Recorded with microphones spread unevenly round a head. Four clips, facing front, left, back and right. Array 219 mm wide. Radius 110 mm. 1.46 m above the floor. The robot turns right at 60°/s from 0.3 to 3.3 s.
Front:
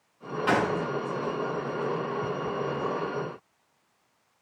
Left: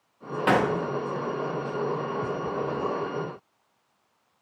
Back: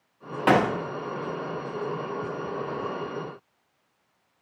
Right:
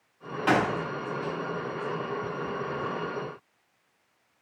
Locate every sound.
0.5 s a gunshot: 165° left, 0.7 m; by 0.8 s 175° right, 0.7 m